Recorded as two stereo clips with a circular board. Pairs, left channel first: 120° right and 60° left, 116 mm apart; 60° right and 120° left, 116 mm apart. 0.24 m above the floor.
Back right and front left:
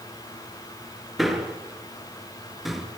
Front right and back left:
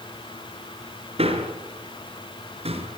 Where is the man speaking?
150° left, 4 m.